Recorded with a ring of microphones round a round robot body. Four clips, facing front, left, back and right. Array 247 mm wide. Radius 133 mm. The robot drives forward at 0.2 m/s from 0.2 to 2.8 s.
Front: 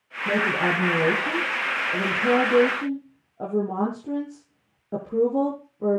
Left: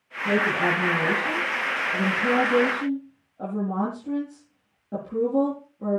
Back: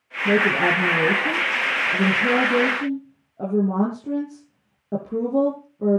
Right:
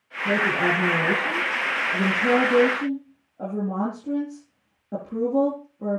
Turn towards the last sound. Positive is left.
turn(degrees=-175)